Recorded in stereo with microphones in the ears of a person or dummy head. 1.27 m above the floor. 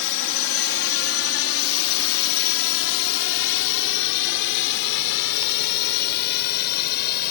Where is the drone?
60° left (ahead or behind); by 7.3 s 55° left (ahead or behind).